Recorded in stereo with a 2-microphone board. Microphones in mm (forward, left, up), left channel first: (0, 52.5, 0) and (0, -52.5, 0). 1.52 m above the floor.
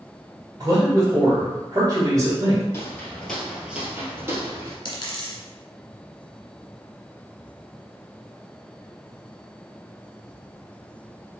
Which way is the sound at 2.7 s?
25° left (ahead or behind).